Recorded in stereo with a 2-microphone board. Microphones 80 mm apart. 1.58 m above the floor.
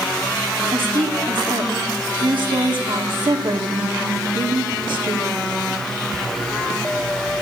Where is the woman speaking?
75° right (ahead or behind), 1.7 m.